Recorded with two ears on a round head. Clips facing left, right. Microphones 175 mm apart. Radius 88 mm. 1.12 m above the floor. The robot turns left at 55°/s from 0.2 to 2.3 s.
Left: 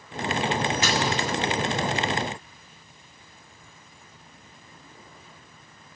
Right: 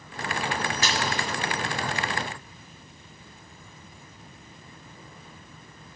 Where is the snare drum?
35° right (ahead or behind), 1.5 m; by 1.0 s 25° right (ahead or behind), 1.5 m.